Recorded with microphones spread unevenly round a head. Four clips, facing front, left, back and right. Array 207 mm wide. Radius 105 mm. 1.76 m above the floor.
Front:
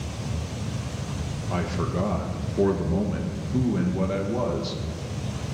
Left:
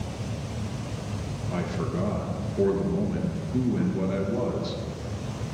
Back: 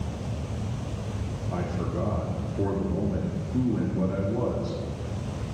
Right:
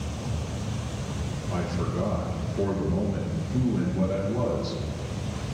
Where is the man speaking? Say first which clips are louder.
Even, front 3 dB; 5° left, 1.8 m.